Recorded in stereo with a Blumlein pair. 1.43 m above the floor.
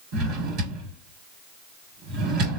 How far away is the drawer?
About 2.5 m.